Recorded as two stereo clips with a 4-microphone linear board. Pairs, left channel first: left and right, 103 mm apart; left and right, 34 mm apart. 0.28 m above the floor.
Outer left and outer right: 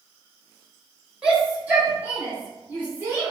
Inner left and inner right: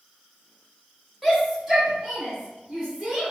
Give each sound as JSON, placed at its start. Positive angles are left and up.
{"t": 1.2, "sound": "a shout", "side_deg": -10, "distance_m": 1.1}